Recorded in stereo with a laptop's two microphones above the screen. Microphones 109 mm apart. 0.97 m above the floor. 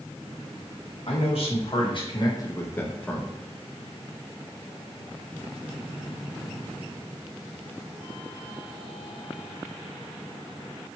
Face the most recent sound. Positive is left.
turn(degrees=0)  # may be behind; listen again after turning